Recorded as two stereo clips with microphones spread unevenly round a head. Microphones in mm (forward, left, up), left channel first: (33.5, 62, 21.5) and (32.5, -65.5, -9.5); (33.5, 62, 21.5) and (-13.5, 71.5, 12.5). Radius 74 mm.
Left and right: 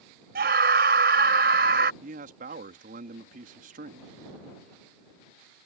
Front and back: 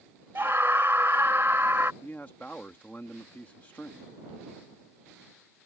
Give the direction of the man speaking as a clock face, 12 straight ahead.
3 o'clock.